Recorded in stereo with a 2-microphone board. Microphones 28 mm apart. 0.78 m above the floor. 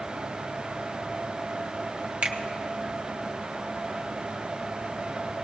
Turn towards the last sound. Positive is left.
turn(degrees=-60)  # may be behind; listen again after turning